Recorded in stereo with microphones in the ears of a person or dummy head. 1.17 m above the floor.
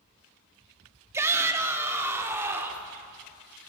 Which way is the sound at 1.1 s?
20° right (ahead or behind).